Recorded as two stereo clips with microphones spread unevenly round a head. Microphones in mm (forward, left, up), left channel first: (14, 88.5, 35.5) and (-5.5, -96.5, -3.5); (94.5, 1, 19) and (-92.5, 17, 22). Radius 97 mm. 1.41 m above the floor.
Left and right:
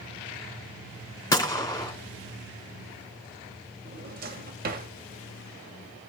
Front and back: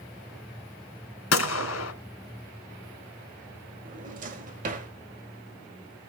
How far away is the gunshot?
About 2.5 m.